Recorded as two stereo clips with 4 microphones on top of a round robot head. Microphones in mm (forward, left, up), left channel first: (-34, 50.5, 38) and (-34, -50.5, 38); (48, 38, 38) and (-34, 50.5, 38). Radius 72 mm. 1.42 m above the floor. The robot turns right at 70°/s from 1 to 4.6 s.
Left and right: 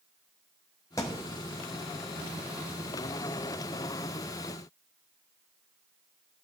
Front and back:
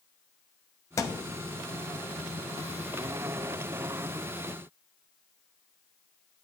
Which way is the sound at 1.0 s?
30° left.